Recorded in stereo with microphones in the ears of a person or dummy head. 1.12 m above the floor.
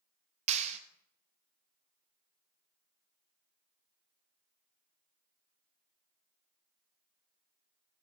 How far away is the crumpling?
No crumpling in this recording.